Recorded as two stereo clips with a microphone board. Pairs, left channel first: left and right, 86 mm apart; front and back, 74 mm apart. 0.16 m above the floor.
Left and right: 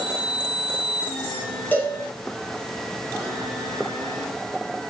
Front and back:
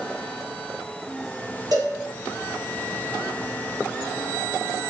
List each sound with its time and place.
1.7 s a cowbell: 160° left, 4.5 m